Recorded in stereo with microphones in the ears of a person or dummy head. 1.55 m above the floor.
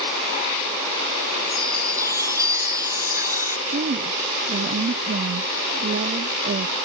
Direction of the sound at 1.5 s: 15° right (ahead or behind).